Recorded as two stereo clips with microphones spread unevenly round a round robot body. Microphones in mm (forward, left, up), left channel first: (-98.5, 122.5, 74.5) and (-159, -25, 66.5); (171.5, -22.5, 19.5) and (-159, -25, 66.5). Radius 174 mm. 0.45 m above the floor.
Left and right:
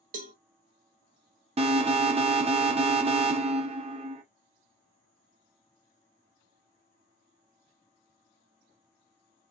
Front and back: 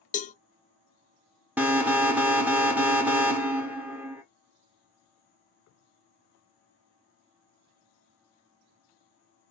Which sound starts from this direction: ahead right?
A cowbell, at 0.1 s.